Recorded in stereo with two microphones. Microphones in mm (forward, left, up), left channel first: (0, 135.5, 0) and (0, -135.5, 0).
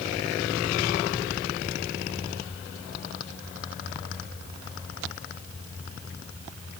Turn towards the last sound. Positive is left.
No sound to turn to.